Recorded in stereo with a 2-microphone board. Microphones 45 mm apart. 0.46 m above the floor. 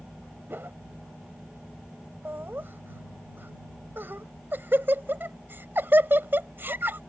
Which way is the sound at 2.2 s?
50° right (ahead or behind).